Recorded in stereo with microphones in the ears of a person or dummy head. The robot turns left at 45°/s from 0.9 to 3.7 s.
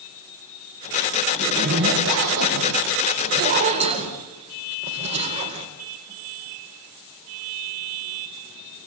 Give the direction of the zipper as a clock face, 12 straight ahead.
1 o'clock.